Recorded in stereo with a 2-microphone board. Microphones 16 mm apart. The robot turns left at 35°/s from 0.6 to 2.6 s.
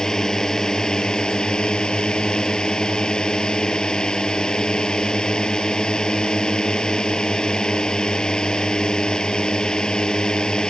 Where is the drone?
130° left; by 10.7 s 60° left.